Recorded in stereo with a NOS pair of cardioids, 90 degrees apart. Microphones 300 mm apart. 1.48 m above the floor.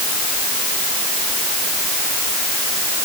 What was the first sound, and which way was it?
Only background noise.